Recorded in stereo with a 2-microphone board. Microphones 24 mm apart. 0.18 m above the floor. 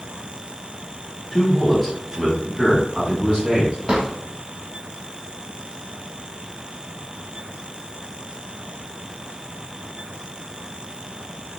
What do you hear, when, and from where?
1.3 s a man speaking: 15° left (ahead or behind), 1.0 m; by 3.8 s 50° right (ahead or behind), 1.8 m
3.9 s a drawer: 50° right (ahead or behind), 1.5 m